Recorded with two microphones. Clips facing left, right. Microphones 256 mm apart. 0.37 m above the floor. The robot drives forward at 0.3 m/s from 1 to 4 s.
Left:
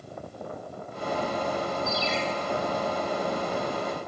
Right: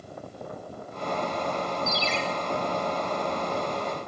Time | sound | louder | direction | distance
1.9 | a ringtone | left 1 dB | 85° right | 1.2 m